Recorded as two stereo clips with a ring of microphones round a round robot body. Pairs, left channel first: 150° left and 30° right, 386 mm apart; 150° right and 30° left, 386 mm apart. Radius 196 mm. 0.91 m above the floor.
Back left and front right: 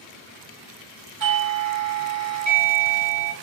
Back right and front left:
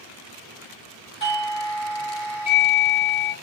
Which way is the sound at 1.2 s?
75° right.